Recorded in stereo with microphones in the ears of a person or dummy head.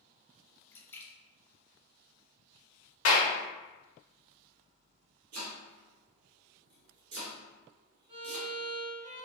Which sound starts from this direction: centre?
A splash, at 0.7 s.